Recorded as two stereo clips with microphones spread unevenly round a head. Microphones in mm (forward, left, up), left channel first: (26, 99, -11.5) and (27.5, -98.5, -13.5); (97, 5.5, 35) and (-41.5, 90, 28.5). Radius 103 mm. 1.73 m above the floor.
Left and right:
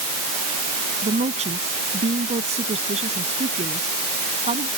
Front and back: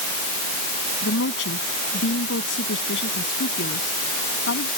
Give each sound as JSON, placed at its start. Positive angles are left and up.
{"t": 1.0, "sound": "a woman speaking", "azimuth_deg": -30}